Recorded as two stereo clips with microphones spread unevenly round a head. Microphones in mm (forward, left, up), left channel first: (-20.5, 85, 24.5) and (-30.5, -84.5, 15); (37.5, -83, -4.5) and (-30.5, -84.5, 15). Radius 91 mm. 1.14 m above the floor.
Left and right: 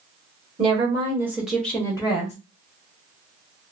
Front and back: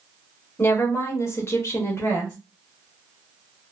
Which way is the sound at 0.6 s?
40° right.